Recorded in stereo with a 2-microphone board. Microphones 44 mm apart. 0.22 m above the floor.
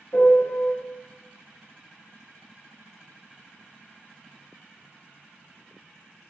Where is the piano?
60° left (ahead or behind), 0.6 m.